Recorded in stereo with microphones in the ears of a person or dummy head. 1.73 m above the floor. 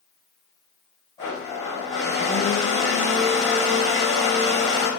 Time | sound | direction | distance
1.2 | a blender | 20° left (ahead or behind) | 1.3 m